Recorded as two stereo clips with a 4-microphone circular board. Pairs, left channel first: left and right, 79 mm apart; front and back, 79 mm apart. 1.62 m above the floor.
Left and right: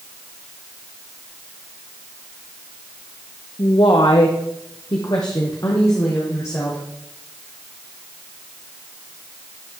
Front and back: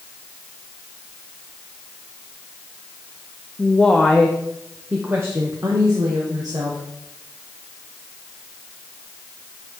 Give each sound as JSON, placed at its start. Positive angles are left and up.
{"t": 3.6, "sound": "a woman speaking", "azimuth_deg": 70, "distance_m": 0.9}